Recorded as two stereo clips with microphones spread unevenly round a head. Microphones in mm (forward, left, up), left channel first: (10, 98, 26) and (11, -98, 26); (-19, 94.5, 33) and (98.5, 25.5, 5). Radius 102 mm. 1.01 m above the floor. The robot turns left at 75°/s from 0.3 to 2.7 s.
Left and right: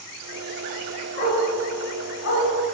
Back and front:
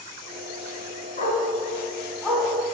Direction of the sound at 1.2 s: 150° left.